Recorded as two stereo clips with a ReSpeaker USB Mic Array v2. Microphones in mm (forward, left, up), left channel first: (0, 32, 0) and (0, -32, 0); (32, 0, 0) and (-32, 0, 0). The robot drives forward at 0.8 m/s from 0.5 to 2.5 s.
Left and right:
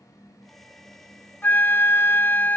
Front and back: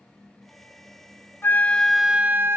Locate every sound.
1.4 s a flute: 40° left; by 2.6 s 140° left